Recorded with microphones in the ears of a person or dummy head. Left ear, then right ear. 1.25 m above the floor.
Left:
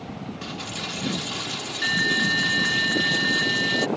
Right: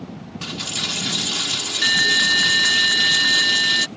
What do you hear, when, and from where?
0.4 s a dropped coin: 25° right (ahead or behind)